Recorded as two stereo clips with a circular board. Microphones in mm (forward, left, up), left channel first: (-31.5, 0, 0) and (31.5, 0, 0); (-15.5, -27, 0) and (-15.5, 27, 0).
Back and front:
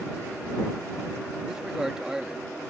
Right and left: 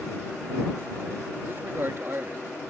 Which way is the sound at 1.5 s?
75° left.